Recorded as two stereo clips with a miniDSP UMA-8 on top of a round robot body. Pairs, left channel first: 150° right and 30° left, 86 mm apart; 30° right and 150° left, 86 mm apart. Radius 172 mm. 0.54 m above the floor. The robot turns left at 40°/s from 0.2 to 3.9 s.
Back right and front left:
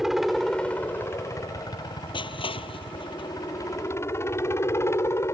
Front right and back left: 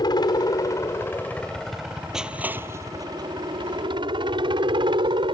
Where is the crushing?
125° right; by 3.3 s 170° right.